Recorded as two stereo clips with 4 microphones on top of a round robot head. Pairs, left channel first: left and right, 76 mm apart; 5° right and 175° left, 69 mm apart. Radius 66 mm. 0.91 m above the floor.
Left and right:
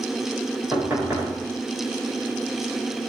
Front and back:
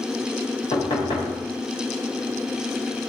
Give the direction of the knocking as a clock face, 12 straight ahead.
1 o'clock.